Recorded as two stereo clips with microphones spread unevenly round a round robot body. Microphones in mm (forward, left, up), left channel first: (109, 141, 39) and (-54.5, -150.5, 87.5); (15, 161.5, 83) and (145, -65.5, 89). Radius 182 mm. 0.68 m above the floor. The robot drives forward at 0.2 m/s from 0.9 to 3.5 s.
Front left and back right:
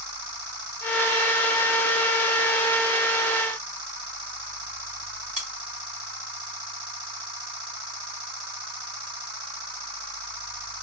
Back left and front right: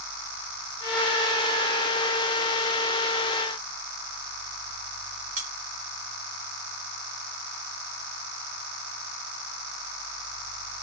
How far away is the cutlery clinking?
About 1.2 m.